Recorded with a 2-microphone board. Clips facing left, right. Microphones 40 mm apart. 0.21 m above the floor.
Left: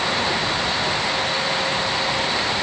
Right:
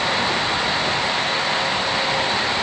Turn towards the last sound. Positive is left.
No sound to turn to.